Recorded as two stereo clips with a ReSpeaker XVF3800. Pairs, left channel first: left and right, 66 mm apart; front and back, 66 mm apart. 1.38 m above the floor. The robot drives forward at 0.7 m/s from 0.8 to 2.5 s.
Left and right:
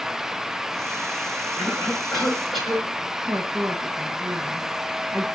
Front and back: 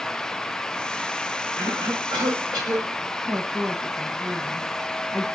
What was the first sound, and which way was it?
A cough, straight behind.